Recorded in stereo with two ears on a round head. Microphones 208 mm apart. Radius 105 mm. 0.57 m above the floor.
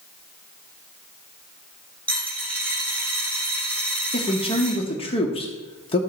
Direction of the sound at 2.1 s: 5° left (ahead or behind).